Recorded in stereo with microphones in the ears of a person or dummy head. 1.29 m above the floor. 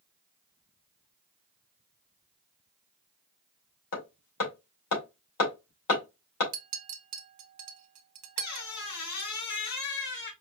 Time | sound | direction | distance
3.9 | hammering | 65° left (ahead or behind) | 2.5 m
6.5 | a clink | 40° right (ahead or behind) | 0.6 m
8.4 | a squeak | 60° left (ahead or behind) | 1.2 m